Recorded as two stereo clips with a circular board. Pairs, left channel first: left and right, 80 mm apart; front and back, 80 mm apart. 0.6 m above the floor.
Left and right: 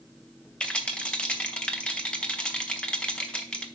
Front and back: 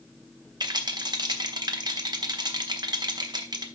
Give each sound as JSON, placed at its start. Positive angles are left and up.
{"t": 0.6, "sound": "a rattle", "azimuth_deg": 165, "distance_m": 1.1}